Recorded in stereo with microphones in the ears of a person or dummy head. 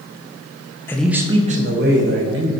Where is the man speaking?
10° left (ahead or behind), 0.8 m; by 2.5 s 70° right (ahead or behind), 1.6 m.